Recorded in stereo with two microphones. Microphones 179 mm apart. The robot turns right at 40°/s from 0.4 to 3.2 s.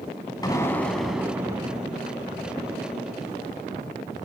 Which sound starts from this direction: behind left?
An explosion, at 0.4 s.